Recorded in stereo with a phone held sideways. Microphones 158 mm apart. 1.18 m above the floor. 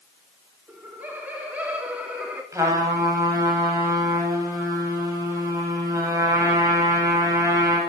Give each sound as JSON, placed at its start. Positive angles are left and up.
{"t": 0.7, "sound": "laughter", "side_deg": -10, "distance_m": 4.0}
{"t": 2.5, "sound": "a trumpet", "side_deg": -20, "distance_m": 9.0}